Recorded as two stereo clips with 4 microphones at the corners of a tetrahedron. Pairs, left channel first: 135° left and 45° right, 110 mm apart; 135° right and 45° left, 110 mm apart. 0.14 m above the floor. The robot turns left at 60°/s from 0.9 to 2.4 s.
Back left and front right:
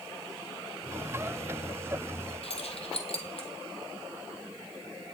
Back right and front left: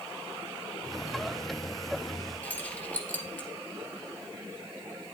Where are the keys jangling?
150° left, 2 m.